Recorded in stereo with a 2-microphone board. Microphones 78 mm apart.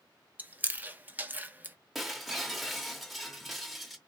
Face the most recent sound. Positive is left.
turn(degrees=0)  # may be behind; listen again after turning